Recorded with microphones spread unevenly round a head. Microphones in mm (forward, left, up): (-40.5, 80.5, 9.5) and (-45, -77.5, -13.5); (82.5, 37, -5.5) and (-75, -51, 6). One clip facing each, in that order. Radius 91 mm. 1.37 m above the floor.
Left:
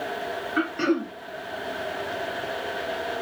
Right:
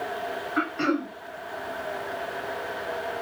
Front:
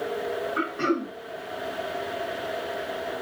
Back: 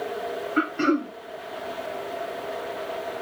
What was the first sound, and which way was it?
Throat clearing, 150° left.